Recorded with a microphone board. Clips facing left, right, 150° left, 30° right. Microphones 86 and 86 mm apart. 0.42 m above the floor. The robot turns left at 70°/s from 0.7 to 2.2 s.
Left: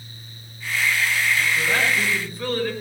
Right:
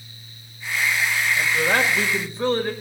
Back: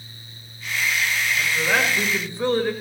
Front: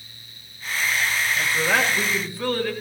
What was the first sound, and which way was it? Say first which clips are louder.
A man speaking: right 2 dB, even; 90° right.